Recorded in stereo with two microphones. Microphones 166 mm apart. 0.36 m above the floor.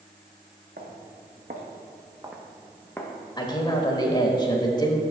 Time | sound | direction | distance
0.8 | footsteps | 75° right (ahead or behind) | 1.9 m
3.4 | a man speaking | 25° left (ahead or behind) | 1.0 m